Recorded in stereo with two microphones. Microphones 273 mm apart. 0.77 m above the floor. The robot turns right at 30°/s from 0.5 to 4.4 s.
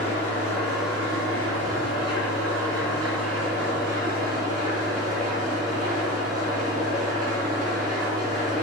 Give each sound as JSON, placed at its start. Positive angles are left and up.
{"t": 0.0, "sound": "an engine running", "azimuth_deg": -150, "distance_m": 2.5}